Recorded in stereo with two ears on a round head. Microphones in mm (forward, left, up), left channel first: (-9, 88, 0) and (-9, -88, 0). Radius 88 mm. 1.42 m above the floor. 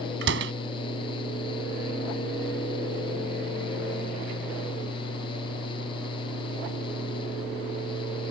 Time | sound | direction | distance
0.2 | a door slam | 60° right (ahead or behind) | ?